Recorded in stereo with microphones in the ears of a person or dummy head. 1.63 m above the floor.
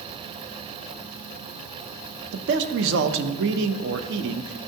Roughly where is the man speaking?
Right.